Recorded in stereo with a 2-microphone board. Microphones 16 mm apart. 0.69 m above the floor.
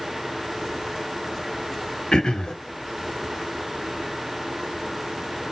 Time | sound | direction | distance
2.1 | throat clearing | 60° left (ahead or behind) | 0.7 m